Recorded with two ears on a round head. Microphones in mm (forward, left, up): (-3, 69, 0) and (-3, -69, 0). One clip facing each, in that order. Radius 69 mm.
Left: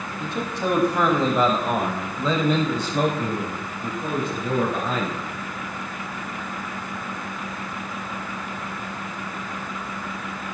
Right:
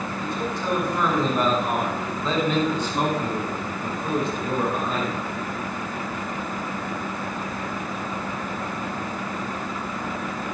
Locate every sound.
0.2 s a man speaking: 45° left (ahead or behind), 5.5 m; by 5.2 s 65° left (ahead or behind), 6.5 m